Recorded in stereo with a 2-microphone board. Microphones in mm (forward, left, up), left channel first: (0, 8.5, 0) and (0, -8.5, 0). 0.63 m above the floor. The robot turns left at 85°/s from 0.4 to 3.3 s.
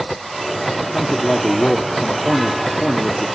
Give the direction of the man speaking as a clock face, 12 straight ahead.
6 o'clock.